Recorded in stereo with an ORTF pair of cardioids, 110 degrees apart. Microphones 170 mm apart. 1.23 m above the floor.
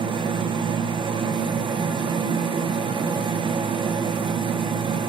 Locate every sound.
0.0 s a machine running: 30° right, 0.7 m